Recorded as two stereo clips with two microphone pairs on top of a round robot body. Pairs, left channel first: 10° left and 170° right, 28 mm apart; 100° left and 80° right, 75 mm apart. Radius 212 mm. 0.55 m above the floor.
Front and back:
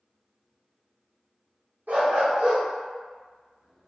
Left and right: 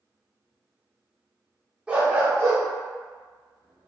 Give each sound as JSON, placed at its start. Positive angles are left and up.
{"t": 1.9, "sound": "a dog barking", "azimuth_deg": -155, "distance_m": 0.8}